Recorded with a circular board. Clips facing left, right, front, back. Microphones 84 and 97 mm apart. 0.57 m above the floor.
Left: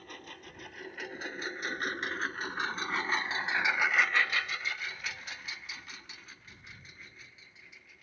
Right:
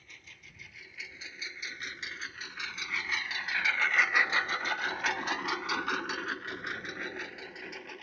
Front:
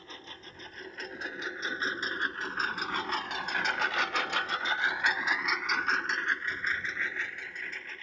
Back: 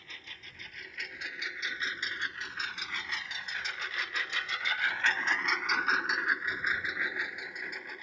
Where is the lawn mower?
55° left; by 8.0 s 105° right.